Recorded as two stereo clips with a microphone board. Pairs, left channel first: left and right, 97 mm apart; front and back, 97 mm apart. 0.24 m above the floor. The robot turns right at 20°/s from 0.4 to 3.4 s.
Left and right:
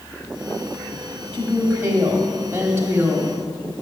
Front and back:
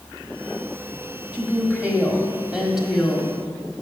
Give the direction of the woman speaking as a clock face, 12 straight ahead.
4 o'clock.